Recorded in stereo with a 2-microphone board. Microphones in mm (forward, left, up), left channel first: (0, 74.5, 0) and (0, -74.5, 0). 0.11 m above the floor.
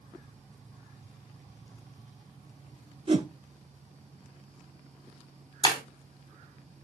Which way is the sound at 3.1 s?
40° right (ahead or behind).